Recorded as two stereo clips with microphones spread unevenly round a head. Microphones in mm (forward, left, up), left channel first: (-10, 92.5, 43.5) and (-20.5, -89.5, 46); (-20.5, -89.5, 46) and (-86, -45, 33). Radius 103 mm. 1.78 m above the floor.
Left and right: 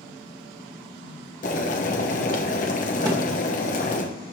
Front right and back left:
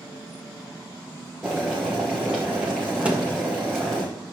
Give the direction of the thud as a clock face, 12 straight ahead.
5 o'clock.